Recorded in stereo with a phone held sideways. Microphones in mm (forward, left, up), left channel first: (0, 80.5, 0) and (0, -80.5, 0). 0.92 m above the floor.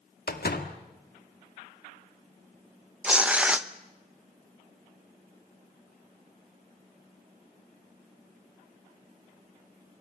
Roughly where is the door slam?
Left.